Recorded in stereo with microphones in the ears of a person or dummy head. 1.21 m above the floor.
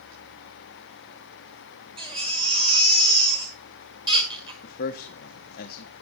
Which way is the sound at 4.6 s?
50° left (ahead or behind).